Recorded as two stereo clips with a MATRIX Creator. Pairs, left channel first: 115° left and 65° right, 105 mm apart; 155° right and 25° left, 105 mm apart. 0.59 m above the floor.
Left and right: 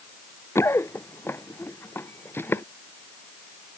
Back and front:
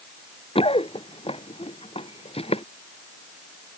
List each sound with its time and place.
0.6 s running footsteps: straight behind